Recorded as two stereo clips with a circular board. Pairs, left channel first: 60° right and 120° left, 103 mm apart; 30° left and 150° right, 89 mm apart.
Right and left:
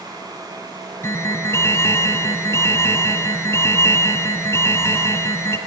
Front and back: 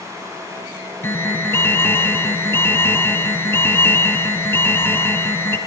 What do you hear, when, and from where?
1.0 s an alarm: 15° right, 2.5 m